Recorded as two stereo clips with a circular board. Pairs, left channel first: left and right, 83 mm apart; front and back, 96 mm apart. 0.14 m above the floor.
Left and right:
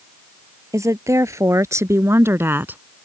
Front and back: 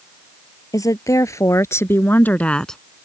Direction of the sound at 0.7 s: 45° right.